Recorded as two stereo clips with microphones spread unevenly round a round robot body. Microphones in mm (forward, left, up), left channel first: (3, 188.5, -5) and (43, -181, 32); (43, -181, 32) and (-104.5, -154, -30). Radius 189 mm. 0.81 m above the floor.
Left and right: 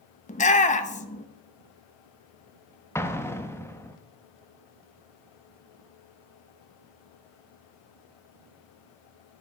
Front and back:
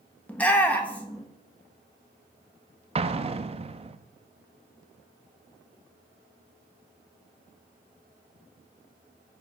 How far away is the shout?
About 0.8 m.